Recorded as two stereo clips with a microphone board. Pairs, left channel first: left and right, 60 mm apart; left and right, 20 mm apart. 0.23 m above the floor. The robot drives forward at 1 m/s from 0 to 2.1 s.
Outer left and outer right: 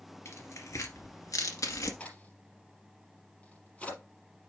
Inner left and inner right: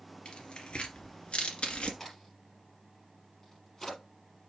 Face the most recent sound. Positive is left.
turn(degrees=20)  # may be behind; listen again after turning